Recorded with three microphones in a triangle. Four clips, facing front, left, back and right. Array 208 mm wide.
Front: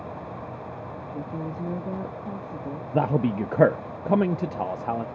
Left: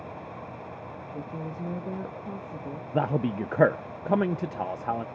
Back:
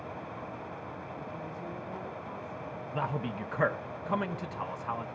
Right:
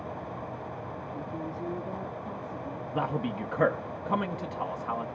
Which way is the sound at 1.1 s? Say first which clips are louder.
Left 1 dB, front 11 dB; 20° left.